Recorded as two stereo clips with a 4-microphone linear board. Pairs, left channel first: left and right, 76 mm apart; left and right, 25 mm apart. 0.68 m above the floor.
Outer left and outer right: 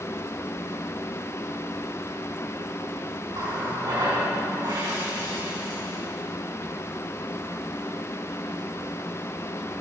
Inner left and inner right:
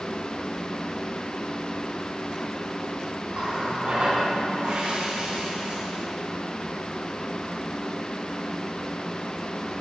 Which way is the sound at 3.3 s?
60° right (ahead or behind).